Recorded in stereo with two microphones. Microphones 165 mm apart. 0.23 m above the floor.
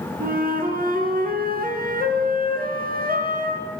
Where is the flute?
65° right (ahead or behind), 3 m.